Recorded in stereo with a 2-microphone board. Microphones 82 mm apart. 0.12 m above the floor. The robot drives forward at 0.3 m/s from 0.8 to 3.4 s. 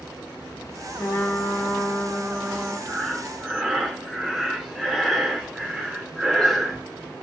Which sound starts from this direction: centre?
Breathing, at 2.9 s.